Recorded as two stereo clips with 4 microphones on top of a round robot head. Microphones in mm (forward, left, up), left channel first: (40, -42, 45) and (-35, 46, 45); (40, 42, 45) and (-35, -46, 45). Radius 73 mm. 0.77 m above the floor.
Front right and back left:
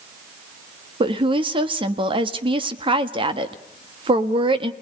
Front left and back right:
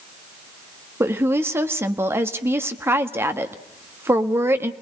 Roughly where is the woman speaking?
Behind.